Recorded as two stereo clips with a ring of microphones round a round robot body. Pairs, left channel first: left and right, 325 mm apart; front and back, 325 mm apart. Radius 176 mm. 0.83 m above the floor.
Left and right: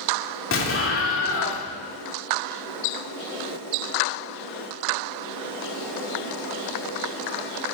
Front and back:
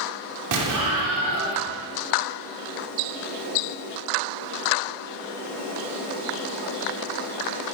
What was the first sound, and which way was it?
An explosion, 140° left.